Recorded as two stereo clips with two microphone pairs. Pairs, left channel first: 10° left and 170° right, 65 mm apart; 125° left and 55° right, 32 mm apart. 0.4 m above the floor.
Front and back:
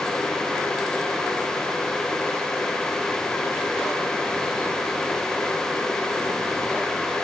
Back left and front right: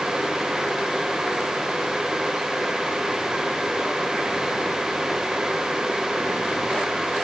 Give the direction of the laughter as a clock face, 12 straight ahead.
I don't hear laughter.